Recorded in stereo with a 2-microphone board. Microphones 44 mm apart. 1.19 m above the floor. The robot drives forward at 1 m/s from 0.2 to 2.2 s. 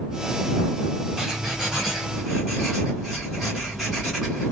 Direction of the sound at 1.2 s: 10° right (ahead or behind).